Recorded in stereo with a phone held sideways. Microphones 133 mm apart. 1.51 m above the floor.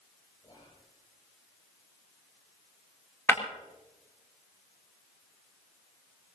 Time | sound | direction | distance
0.4 | whispering | 40° left (ahead or behind) | 7.5 m
3.3 | breaking glass | 20° left (ahead or behind) | 5.5 m